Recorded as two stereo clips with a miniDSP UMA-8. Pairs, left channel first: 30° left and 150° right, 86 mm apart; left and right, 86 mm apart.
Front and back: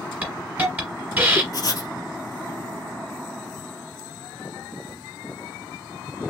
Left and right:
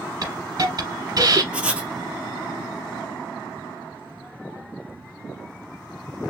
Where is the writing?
10° right, 0.8 m.